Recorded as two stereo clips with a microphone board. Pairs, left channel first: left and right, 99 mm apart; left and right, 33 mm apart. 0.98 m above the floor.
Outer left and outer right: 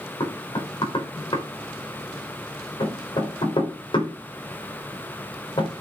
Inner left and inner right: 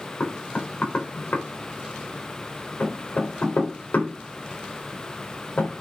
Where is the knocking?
55° left (ahead or behind), 3.5 m.